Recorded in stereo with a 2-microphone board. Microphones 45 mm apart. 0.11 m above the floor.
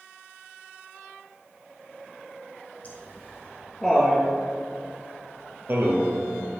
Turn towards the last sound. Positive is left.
turn(degrees=-65)  # may be behind; listen again after turning